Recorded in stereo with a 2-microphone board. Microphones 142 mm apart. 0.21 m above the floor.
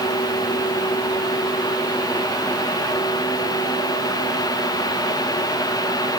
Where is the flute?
No flute in this recording.